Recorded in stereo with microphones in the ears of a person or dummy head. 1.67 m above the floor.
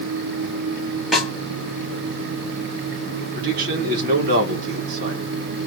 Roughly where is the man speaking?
Right.